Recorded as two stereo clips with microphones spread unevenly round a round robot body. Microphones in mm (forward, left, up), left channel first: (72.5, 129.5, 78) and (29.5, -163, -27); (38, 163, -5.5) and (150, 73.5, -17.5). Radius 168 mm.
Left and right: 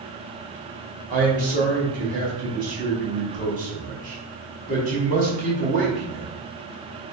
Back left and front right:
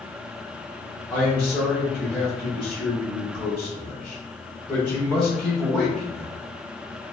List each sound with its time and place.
1.1 s a man speaking: 125° right, 1.1 m